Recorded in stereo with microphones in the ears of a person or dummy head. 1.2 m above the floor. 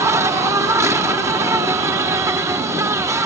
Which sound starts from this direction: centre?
An insect, at 0.0 s.